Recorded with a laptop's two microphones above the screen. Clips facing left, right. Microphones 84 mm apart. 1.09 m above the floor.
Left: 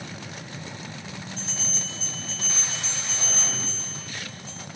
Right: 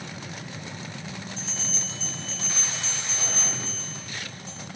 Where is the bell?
50° left (ahead or behind), 2 m.